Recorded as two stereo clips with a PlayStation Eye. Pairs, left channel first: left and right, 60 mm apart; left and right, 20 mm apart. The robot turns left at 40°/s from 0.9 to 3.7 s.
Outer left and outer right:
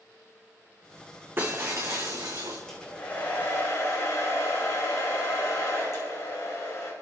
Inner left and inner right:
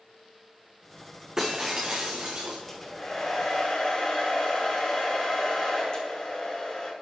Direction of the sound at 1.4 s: 35° right.